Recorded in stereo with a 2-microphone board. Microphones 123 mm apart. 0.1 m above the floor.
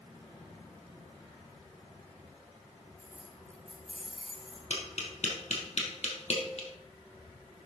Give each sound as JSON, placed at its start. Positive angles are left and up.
{"t": 3.0, "sound": "keys jangling", "side_deg": 25, "distance_m": 2.5}
{"t": 4.7, "sound": "tapping", "side_deg": 65, "distance_m": 3.0}